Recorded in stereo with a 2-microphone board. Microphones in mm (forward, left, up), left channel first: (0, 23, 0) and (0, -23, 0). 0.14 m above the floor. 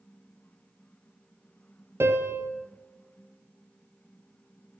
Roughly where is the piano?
Right.